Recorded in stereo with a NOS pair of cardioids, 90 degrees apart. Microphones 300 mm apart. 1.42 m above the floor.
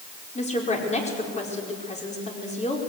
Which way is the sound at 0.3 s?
25° left.